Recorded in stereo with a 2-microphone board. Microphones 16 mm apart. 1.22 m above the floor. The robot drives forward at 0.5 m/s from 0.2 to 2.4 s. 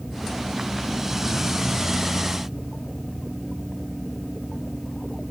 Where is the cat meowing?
No cat meowing in this recording.